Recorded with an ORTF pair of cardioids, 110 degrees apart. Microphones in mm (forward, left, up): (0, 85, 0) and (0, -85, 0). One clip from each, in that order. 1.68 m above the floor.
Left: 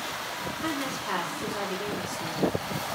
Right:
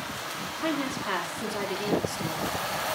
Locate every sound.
0.6 s a woman speaking: 25° right, 3.5 m